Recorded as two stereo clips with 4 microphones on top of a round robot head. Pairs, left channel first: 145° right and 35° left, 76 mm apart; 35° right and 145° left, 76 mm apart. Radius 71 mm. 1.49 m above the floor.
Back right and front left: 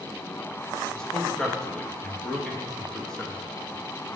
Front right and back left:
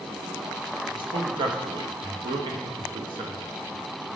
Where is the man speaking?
135° left, 0.7 m.